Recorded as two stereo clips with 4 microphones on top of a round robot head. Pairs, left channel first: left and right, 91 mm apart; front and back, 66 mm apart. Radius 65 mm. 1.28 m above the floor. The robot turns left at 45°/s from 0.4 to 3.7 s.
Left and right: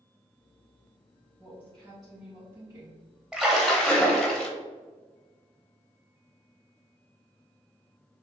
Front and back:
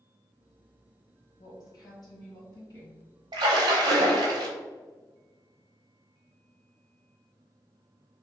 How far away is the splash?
About 0.7 m.